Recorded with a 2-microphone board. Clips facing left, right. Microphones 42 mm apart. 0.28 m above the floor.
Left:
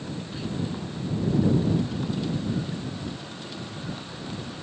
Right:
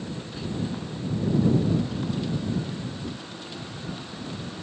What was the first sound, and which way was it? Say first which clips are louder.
Whispering: left 2 dB; 10° left (ahead or behind).